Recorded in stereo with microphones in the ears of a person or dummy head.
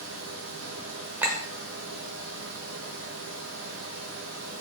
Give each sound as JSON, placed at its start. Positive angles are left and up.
{"t": 0.0, "sound": "a fan", "side_deg": -65, "distance_m": 0.7}
{"t": 1.2, "sound": "a clink", "side_deg": -10, "distance_m": 0.6}